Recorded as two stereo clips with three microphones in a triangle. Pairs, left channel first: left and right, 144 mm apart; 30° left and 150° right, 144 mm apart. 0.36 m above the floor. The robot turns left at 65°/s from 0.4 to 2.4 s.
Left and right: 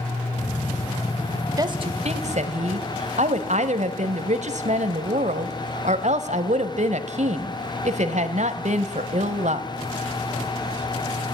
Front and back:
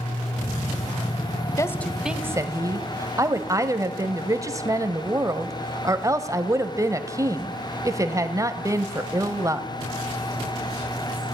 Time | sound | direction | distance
1.6 | a woman speaking | 35° right | 1.7 m